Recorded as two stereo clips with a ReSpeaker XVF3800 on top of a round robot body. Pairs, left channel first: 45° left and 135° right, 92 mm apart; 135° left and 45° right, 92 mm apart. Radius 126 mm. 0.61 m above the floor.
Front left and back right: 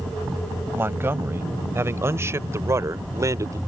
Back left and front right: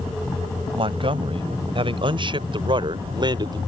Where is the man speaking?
70° right; by 3.6 s 85° right.